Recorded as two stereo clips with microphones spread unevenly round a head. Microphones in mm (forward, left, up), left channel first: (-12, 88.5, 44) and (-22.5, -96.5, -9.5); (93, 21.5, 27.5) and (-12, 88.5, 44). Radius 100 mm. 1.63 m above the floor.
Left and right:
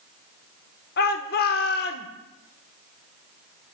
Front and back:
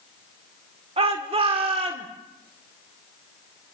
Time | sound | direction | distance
1.0 | a shout | 110° left | 1.3 m